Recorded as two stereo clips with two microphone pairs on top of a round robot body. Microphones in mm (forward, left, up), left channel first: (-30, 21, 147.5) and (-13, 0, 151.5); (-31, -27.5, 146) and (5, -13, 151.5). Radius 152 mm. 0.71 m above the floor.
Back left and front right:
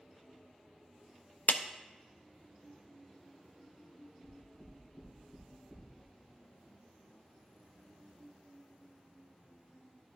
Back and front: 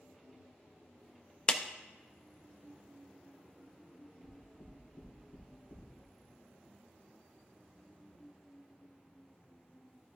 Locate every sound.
1.5 s a clap: 135° left, 0.6 m
4.2 s knocking: 135° right, 2.5 m